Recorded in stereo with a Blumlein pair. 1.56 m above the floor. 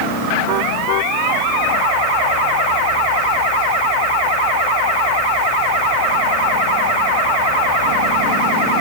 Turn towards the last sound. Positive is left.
No sound to turn to.